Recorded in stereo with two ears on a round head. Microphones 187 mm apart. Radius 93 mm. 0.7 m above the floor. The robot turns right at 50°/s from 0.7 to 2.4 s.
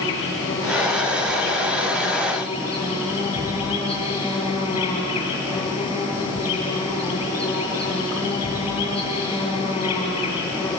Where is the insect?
70° left, 8 m; by 10.8 s 155° left, 8 m.